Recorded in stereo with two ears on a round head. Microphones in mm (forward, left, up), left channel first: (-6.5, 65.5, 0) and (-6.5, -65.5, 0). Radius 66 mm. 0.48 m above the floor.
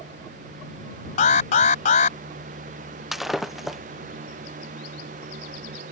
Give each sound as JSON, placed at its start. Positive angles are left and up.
{"t": 1.2, "sound": "an alarm", "side_deg": 50}
{"t": 3.1, "sound": "breaking glass", "side_deg": 0}